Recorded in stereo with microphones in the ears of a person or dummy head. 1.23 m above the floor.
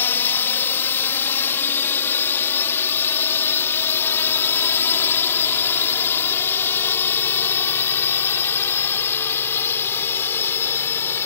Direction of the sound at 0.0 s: 15° left (ahead or behind).